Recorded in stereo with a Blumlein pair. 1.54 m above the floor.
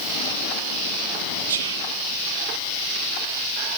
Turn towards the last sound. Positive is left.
turn(degrees=-65)